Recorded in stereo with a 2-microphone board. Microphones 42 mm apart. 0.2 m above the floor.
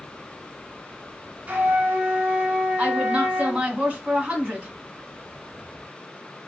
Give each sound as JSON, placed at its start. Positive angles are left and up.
{"t": 1.5, "sound": "a flute", "side_deg": -30, "distance_m": 1.0}
{"t": 2.8, "sound": "a woman speaking", "side_deg": -30, "distance_m": 1.1}